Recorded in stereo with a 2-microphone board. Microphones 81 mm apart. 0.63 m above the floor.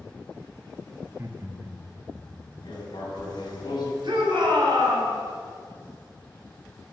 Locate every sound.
1.0 s laughter: 25° right (ahead or behind), 0.7 m; by 2.7 s 40° right (ahead or behind), 2 m
2.6 s writing: 65° left (ahead or behind), 3 m
4.0 s a shout: 70° right (ahead or behind), 3 m